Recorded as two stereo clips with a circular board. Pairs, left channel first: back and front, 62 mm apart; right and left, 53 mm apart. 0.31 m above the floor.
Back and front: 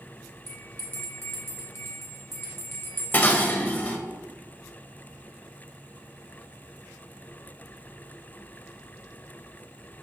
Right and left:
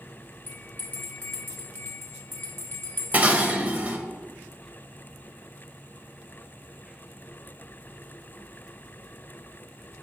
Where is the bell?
140° right, 1.1 m.